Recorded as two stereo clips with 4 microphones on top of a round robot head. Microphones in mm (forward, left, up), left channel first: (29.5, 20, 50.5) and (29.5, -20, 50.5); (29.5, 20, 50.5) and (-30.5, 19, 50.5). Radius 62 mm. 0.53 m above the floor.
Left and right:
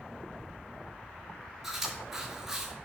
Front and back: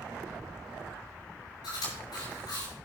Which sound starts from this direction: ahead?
Chewing, at 1.6 s.